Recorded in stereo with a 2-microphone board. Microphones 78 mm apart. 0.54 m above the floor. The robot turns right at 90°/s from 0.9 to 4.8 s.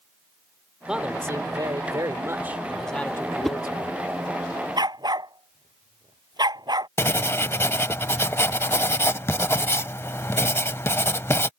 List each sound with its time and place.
0.9 s a man speaking: 170° right; by 3.9 s 100° left
3.4 s a whoosh: centre (ahead or behind); by 3.6 s 10° left (ahead or behind)
4.8 s a dog barking: 70° right (ahead or behind); by 6.9 s 65° right (ahead or behind)
7.0 s writing: 30° left (ahead or behind)